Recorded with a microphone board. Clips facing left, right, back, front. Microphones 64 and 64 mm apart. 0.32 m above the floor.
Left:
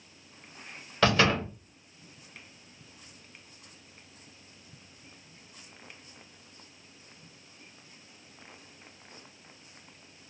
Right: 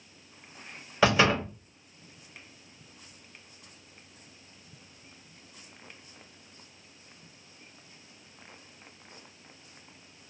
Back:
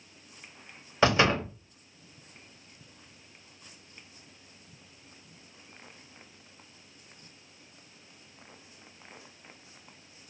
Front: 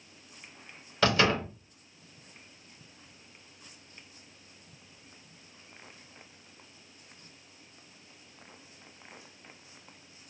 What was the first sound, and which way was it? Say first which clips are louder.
A door slam: right 1 dB, back 2 dB; 155° right.